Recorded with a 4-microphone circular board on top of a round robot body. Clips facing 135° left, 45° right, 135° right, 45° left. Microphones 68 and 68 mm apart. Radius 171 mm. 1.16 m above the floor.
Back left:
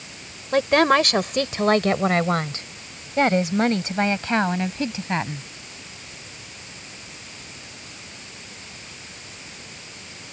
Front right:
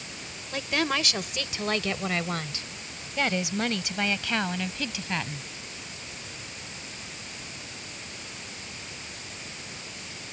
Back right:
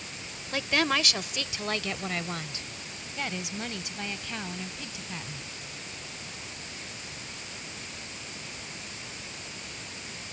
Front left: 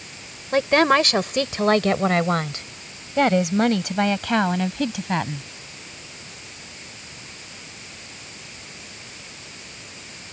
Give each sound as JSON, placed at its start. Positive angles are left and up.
{"t": 0.5, "sound": "a woman speaking", "azimuth_deg": 95}